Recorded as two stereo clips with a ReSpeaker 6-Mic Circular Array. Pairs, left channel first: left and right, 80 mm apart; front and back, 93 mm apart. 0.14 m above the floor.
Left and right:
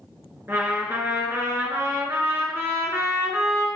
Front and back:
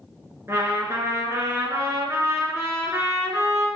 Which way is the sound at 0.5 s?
135° right.